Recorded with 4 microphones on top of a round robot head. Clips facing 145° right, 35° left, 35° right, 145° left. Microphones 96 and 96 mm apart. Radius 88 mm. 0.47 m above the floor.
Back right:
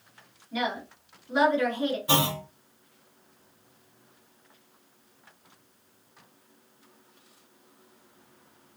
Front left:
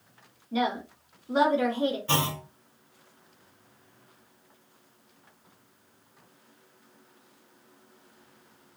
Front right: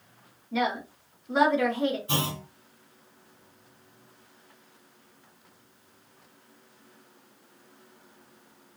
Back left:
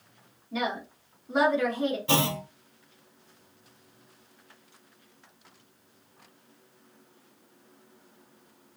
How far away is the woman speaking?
About 1.7 m.